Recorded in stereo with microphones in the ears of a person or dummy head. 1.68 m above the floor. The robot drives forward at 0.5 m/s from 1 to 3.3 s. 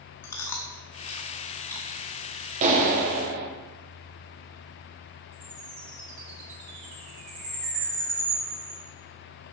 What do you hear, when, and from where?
0.2 s chewing: 10° left (ahead or behind), 0.7 m; by 2.0 s 5° left (ahead or behind), 1.2 m
2.6 s a clap: 40° right (ahead or behind), 1.2 m; by 3.5 s 50° right (ahead or behind), 1.0 m
5.3 s a chime: 40° right (ahead or behind), 3.5 m